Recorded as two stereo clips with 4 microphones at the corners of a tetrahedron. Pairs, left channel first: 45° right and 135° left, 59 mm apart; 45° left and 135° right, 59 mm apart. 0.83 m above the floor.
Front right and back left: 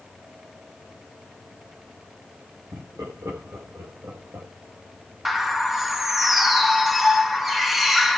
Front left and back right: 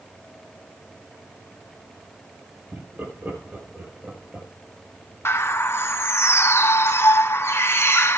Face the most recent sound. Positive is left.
turn(degrees=50)